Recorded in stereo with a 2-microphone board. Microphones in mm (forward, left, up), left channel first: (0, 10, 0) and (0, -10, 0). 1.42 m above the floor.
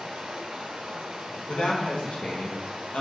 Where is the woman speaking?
80° left, 1.4 m.